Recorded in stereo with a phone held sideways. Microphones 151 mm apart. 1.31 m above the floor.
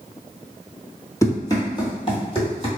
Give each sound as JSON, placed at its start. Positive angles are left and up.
{"t": 1.2, "sound": "running footsteps", "side_deg": 20, "distance_m": 1.3}